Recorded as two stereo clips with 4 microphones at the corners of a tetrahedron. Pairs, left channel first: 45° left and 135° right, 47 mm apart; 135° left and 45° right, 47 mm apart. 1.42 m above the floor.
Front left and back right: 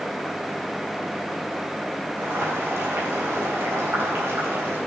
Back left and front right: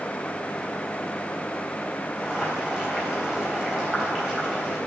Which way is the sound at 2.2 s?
120° right.